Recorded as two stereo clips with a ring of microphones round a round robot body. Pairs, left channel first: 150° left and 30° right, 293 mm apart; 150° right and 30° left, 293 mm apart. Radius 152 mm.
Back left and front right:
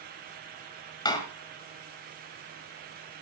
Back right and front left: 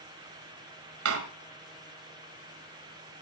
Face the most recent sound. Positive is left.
turn(degrees=75)